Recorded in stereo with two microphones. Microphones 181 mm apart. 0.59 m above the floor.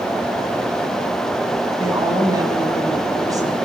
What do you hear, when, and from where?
1.8 s a woman speaking: 20° right (ahead or behind), 5.5 m